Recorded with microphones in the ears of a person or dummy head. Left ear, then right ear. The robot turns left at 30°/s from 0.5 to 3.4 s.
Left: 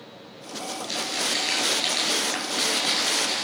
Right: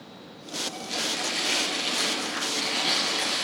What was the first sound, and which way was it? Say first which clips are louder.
Crumpling: left 3 dB; 80° left.